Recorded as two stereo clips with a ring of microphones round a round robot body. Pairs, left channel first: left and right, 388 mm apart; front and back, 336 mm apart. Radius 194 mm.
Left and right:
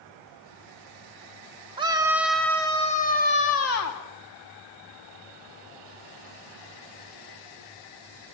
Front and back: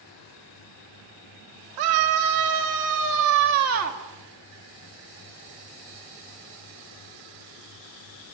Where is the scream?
165° right, 2.5 m; by 4.0 s 130° left, 2 m.